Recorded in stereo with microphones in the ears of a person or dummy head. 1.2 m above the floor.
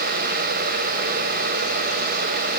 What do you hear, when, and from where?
Only background noise.